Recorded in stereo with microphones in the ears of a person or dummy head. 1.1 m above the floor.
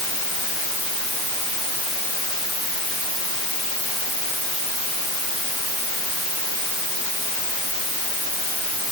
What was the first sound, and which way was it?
Only background noise.